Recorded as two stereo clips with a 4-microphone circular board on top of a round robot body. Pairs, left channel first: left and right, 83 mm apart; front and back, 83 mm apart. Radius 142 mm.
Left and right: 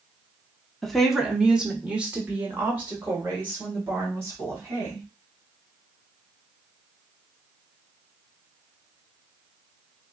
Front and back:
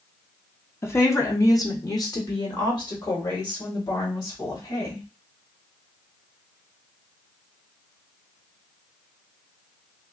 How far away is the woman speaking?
About 1.1 m.